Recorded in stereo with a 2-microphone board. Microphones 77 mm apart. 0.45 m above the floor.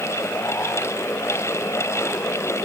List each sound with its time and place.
Only background noise.